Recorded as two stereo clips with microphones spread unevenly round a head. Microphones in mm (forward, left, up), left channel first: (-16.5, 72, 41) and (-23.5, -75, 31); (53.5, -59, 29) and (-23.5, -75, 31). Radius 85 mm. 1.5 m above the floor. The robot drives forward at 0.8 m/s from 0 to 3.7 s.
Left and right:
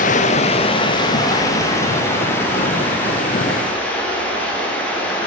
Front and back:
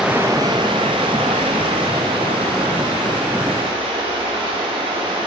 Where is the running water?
105° left, 0.9 m; by 5.3 s 170° left, 3.5 m.